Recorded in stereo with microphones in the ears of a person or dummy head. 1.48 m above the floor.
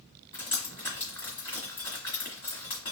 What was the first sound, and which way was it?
Dripping, 35° left (ahead or behind).